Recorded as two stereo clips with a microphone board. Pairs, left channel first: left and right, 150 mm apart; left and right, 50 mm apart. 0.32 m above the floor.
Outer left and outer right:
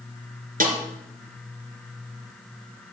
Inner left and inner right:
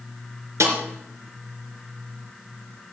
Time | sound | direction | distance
0.6 | a snare drum | 70° right (ahead or behind) | 3.5 m